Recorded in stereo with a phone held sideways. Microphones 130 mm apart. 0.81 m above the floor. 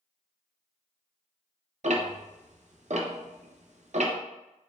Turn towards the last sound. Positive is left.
turn(degrees=-65)  # may be behind; listen again after turning